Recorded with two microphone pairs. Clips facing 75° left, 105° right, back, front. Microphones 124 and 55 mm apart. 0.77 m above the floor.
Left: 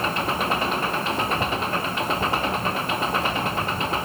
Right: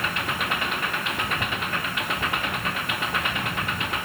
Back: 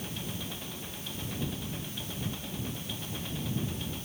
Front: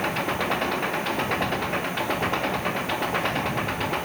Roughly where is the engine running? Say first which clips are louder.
Left 5 dB, front 14 dB; ahead.